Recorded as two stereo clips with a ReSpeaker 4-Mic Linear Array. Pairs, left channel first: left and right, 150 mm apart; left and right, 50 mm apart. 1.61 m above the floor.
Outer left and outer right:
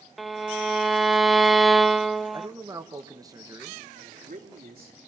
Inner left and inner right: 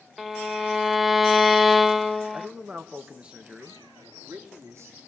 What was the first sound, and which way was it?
A violin, centre (ahead or behind).